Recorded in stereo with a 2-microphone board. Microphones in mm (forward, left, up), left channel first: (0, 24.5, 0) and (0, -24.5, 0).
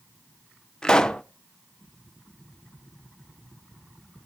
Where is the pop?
15° left (ahead or behind), 0.6 m.